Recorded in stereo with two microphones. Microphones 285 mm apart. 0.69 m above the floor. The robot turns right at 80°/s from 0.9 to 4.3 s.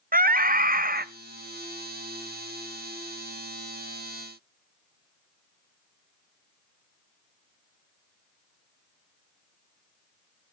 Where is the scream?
30° right (ahead or behind), 0.8 m; by 1.1 s 35° right (ahead or behind), 0.8 m.